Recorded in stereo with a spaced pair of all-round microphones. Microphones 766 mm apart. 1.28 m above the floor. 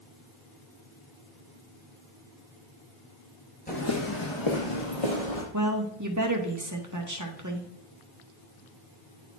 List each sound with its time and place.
3.7 s footsteps: 10° left (ahead or behind), 1.3 m; by 5.4 s 50° left (ahead or behind), 2.5 m
5.5 s a woman speaking: 25° right (ahead or behind), 1.4 m